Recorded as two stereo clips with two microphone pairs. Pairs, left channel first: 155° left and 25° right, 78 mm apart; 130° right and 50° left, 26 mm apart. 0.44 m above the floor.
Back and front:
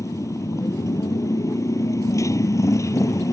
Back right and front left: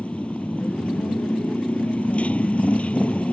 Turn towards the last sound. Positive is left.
turn(degrees=-160)